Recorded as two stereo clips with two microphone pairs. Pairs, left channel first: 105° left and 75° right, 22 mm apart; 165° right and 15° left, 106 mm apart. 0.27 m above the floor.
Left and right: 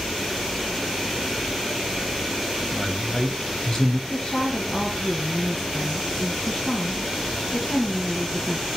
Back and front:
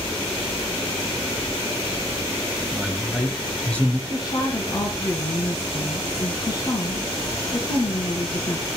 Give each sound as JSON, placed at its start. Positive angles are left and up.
{"t": 2.7, "sound": "a man speaking", "azimuth_deg": 95, "distance_m": 1.5}
{"t": 4.1, "sound": "a woman speaking", "azimuth_deg": 155, "distance_m": 2.5}